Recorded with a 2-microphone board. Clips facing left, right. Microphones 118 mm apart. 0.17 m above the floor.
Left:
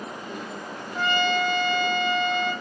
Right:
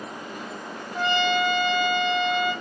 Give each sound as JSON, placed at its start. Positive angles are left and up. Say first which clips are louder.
{"t": 0.9, "sound": "a trumpet", "louder": "right 1 dB", "side_deg": 35, "distance_m": 1.7}